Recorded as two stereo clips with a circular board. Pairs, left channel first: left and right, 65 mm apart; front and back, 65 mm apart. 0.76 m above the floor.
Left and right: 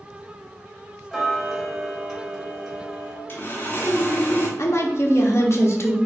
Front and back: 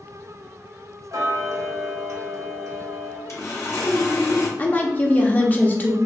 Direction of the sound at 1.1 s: 170° right.